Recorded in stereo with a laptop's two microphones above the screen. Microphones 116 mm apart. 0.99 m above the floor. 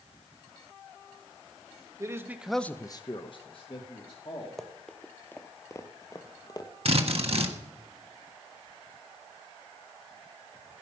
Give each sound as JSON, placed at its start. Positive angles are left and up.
{"t": 2.0, "sound": "a man speaking", "side_deg": -25, "distance_m": 1.1}
{"t": 4.6, "sound": "running footsteps", "side_deg": 0, "distance_m": 1.2}
{"t": 6.8, "sound": "a drill", "side_deg": -55, "distance_m": 1.5}